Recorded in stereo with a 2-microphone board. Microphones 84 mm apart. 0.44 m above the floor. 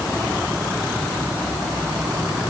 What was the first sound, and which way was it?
Only background noise.